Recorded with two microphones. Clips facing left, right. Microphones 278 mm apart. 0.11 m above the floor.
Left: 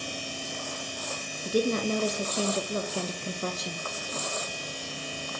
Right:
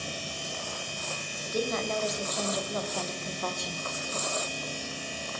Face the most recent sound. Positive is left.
turn(degrees=20)  # may be behind; listen again after turning